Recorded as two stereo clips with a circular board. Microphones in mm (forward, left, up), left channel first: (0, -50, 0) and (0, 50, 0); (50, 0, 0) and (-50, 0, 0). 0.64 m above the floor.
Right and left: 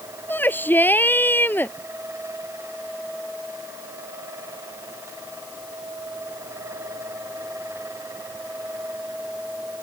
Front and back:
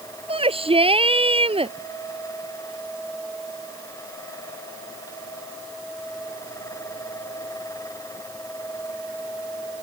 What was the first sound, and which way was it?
A shout, 160° right.